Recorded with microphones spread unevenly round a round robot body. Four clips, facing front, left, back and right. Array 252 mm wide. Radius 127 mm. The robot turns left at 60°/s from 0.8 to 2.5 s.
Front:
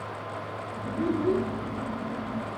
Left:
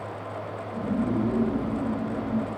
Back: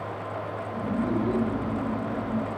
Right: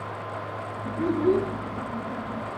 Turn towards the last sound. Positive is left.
turn(degrees=-140)